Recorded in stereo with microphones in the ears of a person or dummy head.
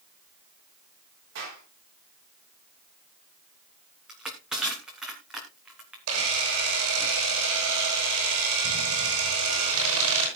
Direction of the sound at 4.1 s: Centre (ahead or behind).